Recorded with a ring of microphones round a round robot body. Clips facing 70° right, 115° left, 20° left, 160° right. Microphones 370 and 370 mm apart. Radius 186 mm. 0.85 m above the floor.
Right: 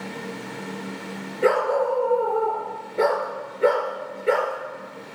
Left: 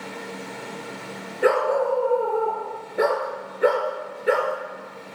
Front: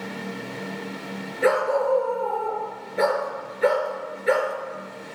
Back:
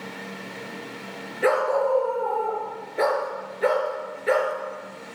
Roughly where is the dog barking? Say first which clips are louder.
Even, front 1 dB; ahead.